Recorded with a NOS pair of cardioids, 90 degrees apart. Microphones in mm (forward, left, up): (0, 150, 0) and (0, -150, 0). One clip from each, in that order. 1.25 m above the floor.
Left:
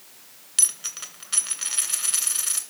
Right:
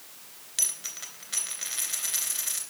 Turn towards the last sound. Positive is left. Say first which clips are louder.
# left 4 dB
turn(degrees=35)